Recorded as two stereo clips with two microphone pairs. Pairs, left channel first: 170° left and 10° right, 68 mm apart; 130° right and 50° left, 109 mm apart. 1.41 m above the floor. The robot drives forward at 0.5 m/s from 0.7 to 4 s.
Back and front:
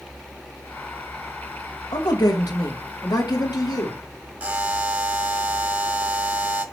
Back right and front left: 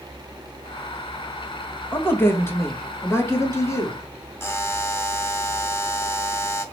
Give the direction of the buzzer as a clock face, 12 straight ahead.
2 o'clock.